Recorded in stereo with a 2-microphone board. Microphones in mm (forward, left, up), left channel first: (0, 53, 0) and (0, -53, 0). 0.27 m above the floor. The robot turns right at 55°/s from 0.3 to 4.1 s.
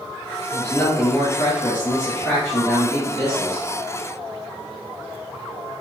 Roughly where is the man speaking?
Ahead.